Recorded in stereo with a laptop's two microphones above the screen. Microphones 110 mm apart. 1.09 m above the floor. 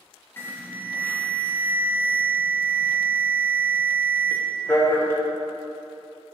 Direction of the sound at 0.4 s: 20° left (ahead or behind).